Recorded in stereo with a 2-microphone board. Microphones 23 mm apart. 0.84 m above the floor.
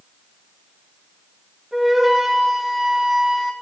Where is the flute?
15° right (ahead or behind), 2.5 m.